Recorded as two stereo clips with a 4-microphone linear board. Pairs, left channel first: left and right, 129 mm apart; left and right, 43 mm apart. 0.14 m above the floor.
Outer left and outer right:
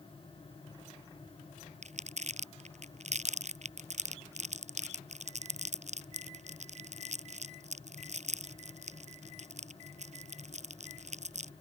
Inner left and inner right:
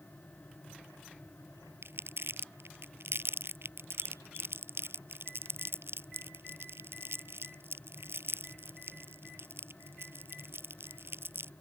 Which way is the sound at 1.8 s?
65° right (ahead or behind).